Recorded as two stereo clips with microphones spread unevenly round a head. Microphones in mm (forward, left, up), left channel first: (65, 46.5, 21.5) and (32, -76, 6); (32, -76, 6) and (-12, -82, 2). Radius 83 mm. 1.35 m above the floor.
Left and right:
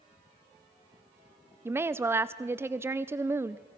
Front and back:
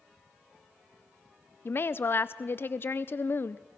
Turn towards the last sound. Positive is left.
turn(degrees=-35)